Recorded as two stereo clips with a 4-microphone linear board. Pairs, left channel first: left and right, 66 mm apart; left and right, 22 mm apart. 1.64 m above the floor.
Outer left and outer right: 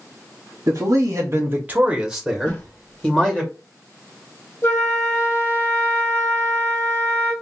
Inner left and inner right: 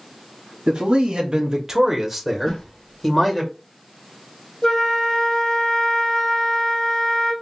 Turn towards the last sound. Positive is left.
turn(degrees=40)  # may be behind; listen again after turning